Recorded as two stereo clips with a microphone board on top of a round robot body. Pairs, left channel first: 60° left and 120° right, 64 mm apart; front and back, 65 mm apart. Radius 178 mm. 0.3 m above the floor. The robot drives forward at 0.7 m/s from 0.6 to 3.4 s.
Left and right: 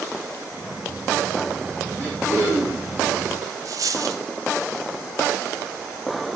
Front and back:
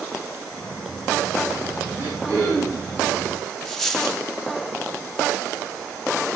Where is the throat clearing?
120° left, 8.5 m; by 2.9 s 125° left, 9 m.